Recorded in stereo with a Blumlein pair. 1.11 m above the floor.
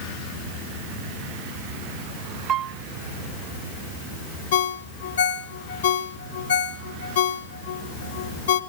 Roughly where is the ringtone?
Ahead left.